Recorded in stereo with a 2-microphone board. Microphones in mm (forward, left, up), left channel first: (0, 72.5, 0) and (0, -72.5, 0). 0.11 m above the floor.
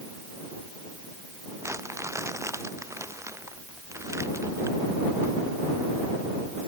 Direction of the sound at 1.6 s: 20° right (ahead or behind).